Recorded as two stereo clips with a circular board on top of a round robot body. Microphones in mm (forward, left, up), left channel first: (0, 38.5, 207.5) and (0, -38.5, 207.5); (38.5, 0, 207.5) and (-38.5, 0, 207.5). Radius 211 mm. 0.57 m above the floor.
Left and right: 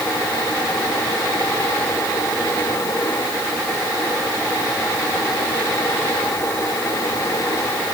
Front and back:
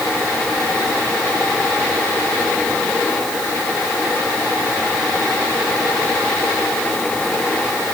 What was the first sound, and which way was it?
Only background noise.